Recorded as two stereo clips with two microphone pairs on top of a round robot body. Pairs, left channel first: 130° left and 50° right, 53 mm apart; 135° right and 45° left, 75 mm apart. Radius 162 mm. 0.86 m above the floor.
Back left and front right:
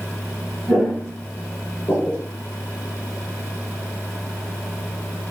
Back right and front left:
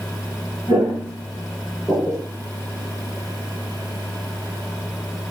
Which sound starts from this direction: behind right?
Footsteps, at 0.7 s.